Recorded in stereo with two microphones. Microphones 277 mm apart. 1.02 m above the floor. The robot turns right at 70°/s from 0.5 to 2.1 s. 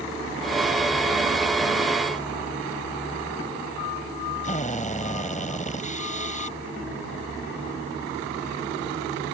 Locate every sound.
4.4 s a drill: 25° left (ahead or behind)